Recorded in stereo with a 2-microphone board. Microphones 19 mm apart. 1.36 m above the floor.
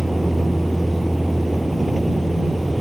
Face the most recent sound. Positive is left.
turn(degrees=-5)  # may be behind; listen again after turning